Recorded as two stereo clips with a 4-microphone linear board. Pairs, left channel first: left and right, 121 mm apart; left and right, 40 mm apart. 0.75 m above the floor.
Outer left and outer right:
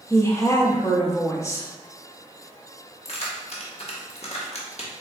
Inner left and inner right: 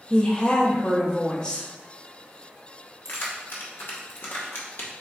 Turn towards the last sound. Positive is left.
turn(degrees=60)  # may be behind; listen again after turning